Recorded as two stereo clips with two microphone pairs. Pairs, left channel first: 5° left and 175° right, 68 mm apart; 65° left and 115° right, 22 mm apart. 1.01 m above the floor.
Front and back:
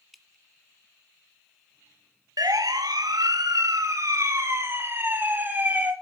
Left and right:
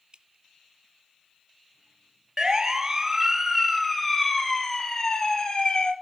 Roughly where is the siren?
Behind.